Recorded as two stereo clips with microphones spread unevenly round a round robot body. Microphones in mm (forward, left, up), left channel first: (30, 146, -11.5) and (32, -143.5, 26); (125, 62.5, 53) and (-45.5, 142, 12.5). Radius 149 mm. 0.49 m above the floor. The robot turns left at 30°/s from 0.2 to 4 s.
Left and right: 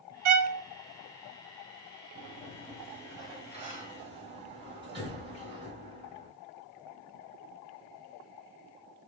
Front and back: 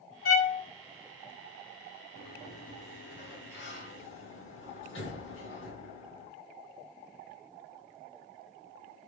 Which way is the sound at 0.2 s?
75° right.